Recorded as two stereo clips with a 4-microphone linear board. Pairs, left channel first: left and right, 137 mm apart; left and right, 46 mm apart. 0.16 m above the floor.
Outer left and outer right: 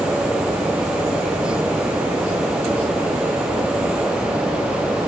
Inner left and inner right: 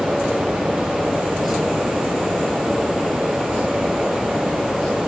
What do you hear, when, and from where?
Only background noise.